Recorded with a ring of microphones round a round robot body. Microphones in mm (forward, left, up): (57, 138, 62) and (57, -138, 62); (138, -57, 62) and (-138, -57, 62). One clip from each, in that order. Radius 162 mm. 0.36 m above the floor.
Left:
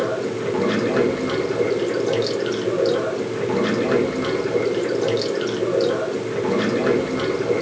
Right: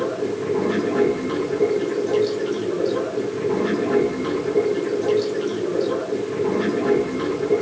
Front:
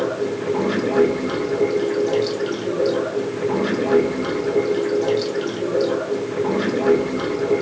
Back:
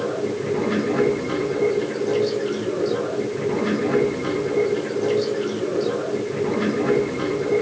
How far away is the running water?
About 3 m.